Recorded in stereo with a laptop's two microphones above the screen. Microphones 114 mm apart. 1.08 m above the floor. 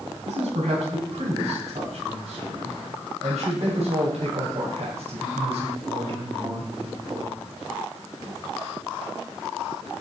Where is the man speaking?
75° right (ahead or behind), 8 m; by 7.4 s 55° right (ahead or behind), 4.5 m.